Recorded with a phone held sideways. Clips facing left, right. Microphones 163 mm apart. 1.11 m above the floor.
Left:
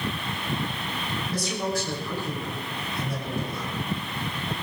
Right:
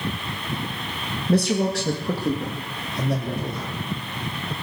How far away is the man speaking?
About 1.4 m.